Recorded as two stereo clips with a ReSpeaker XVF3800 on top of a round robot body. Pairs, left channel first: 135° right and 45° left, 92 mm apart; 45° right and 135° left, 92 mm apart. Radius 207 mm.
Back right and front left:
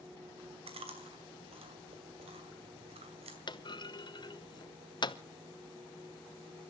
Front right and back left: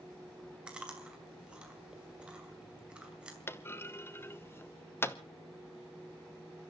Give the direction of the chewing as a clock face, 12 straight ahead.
10 o'clock.